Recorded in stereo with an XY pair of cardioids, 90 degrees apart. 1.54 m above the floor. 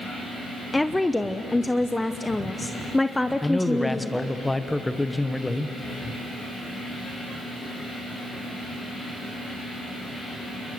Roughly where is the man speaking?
Ahead.